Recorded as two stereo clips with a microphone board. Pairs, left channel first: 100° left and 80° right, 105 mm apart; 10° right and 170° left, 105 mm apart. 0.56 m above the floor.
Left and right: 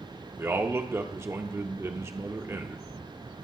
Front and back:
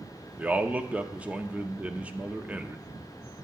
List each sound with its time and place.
0.4 s a man speaking: 120° right, 0.7 m